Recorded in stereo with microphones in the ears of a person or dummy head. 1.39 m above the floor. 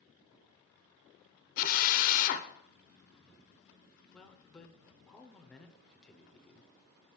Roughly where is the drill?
Left.